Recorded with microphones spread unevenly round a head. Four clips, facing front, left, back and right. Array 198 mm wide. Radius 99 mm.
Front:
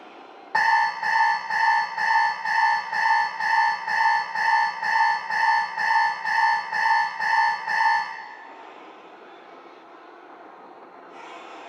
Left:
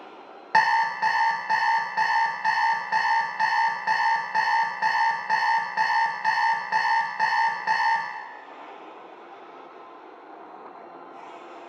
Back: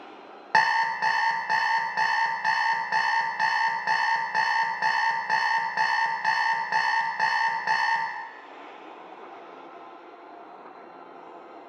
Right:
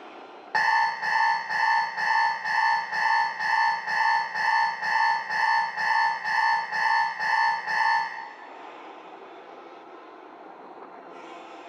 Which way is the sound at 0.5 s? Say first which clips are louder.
Left 2 dB, front 2 dB; 140° left.